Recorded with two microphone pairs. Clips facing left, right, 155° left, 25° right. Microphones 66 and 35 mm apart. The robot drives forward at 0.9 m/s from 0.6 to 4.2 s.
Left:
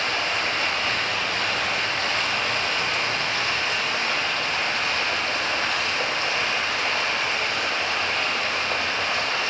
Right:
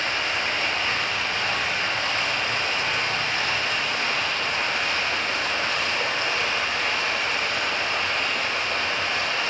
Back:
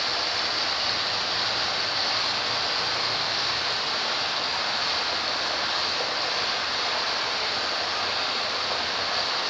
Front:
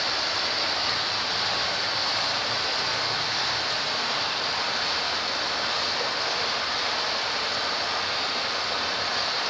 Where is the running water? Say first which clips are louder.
Left 1 dB, even; 80° left, 5 m; by 9.5 s 115° left, 5.5 m.